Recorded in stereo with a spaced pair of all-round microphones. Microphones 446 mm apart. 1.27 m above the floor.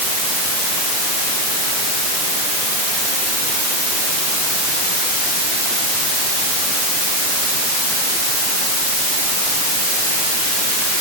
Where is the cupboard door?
I don't hear a cupboard door.